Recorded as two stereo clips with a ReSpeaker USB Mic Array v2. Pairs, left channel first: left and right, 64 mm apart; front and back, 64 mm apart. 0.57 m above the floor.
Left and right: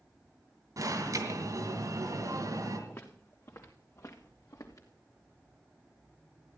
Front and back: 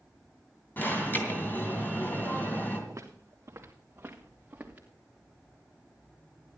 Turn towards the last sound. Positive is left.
turn(degrees=115)